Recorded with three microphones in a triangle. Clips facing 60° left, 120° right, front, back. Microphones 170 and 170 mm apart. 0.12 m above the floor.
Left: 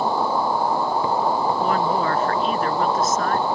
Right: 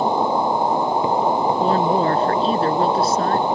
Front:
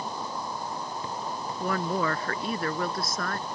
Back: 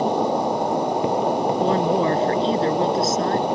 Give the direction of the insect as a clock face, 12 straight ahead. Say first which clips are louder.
Right 3 dB, back 15 dB; 6 o'clock.